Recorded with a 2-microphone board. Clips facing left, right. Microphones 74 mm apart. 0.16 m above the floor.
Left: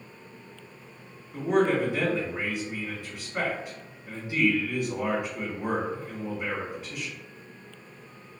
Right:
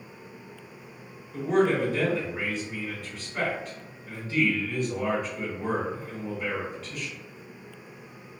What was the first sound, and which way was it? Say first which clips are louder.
A man speaking: even; 15° left (ahead or behind).